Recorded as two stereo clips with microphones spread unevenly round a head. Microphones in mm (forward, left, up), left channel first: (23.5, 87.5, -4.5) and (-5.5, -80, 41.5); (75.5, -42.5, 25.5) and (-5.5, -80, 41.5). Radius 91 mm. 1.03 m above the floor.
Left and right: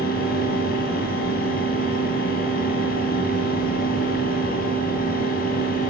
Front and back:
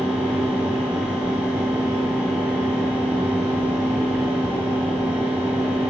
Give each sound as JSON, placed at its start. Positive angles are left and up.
{"t": 0.0, "sound": "a fan", "azimuth_deg": 125, "distance_m": 2.0}